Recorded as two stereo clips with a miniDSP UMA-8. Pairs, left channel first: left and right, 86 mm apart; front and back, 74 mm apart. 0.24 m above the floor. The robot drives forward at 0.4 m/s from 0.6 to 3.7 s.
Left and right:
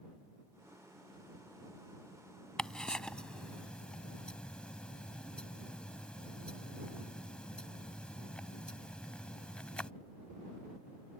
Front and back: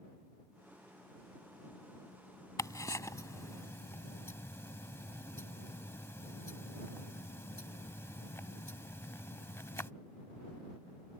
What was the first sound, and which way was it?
Ticking, 10° left.